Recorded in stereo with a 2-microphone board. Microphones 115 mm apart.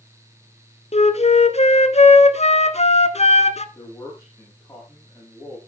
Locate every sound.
0.9 s a flute: 70° left (ahead or behind), 0.8 m
3.8 s a man speaking: 30° left (ahead or behind), 9.5 m